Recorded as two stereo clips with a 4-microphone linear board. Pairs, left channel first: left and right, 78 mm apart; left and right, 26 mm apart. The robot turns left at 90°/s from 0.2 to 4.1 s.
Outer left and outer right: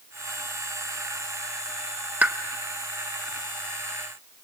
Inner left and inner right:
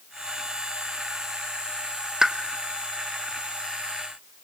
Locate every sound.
2.2 s a pop: 20° right (ahead or behind), 1.0 m; by 2.4 s 15° right (ahead or behind), 1.0 m